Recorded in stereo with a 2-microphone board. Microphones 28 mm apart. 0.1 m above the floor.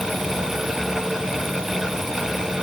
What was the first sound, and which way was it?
Only background noise.